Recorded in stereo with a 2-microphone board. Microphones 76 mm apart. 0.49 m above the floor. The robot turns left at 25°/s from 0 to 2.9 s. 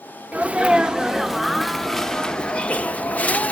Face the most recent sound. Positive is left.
turn(degrees=145)